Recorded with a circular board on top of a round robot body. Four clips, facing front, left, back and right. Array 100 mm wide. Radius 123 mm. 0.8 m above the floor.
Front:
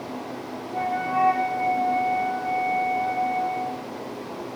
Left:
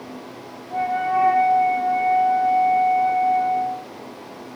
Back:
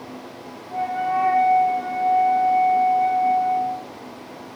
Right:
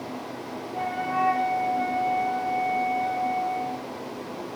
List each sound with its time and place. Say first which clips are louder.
0.7 s a flute: left 7 dB, back 3 dB; 100° left, 4 m